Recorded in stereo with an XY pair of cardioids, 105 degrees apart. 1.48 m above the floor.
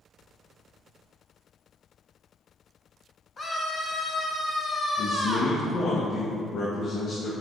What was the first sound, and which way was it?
A scream, 30° left.